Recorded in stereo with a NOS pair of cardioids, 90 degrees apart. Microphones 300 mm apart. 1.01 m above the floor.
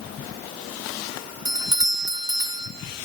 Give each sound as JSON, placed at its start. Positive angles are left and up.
{"t": 1.4, "sound": "a doorbell", "azimuth_deg": -15, "distance_m": 1.7}